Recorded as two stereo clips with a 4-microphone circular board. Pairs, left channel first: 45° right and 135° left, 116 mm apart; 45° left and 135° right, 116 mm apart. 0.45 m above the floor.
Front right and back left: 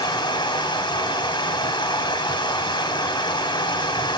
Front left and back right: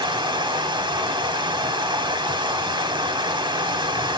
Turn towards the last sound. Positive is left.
turn(degrees=-90)